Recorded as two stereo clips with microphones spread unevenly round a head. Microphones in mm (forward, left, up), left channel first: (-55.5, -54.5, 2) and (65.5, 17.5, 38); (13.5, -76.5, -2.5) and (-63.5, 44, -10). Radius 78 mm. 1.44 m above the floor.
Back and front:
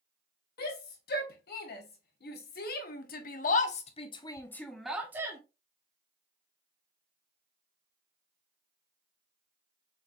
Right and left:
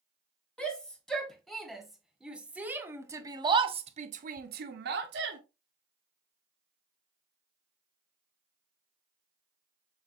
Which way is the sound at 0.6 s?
140° right.